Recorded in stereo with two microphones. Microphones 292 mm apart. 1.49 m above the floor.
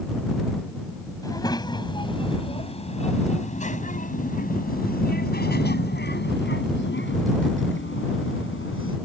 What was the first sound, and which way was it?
A child speaking, 10° left (ahead or behind).